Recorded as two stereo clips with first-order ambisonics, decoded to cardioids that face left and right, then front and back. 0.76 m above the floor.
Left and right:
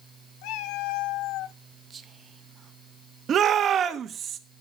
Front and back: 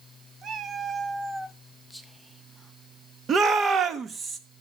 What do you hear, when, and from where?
0.4 s a cat meowing: 115° left, 1.0 m; by 1.6 s 85° left, 0.5 m
1.9 s whispering: 90° right, 0.9 m
3.3 s a shout: 130° right, 1.2 m